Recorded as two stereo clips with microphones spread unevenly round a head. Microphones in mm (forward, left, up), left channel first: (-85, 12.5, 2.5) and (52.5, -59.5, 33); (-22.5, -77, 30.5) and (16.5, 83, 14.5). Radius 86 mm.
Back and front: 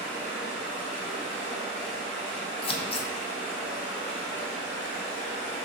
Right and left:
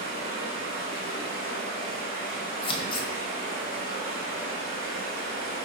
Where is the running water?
125° left, 1.5 m.